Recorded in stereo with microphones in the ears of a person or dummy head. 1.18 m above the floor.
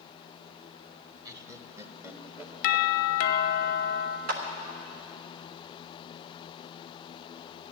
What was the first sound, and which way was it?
Laughter, 20° right (ahead or behind).